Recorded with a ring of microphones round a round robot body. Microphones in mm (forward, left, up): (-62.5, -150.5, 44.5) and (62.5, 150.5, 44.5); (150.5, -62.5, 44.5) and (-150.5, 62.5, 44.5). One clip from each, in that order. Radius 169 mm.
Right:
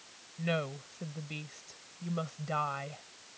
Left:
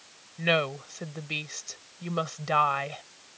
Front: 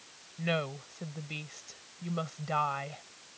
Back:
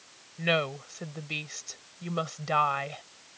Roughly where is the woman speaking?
Left.